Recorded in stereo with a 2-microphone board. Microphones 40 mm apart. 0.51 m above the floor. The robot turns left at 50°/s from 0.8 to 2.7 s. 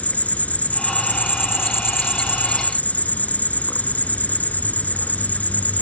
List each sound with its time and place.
0.0 s an insect: 140° left, 1.1 m; by 5.8 s 45° left, 1.1 m